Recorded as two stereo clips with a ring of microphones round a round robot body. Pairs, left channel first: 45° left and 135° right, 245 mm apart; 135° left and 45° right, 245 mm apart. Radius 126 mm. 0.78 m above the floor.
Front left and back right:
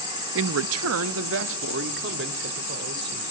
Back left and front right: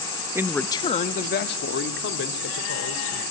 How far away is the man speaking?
About 0.7 m.